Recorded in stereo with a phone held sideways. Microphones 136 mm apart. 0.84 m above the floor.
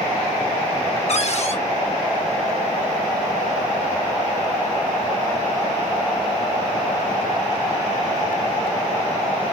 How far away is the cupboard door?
About 0.9 m.